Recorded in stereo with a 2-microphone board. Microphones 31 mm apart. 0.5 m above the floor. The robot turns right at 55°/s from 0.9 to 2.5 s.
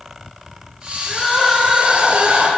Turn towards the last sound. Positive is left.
turn(degrees=-120)